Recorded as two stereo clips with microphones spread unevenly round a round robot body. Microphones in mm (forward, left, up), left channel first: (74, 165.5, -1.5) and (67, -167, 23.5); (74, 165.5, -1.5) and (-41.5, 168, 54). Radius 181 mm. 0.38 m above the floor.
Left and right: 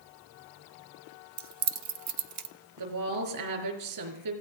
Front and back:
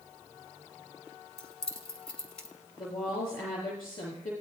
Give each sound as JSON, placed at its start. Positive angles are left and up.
{"t": 1.4, "sound": "keys jangling", "azimuth_deg": -60, "distance_m": 1.1}
{"t": 2.8, "sound": "a woman speaking", "azimuth_deg": -70, "distance_m": 5.0}